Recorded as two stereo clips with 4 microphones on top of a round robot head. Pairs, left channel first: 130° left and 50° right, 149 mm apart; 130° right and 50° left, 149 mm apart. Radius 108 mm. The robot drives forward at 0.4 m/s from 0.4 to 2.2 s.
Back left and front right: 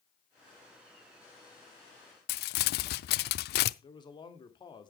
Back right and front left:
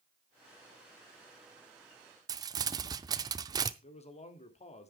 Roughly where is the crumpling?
Behind left.